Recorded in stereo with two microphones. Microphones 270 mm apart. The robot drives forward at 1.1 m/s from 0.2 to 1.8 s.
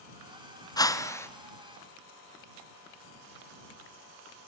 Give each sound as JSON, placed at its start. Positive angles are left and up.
{"t": 0.8, "sound": "a whoosh", "side_deg": 15, "distance_m": 1.1}